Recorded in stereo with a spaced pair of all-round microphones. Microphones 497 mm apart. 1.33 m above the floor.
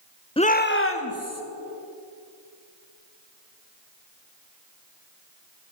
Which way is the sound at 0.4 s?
10° left (ahead or behind).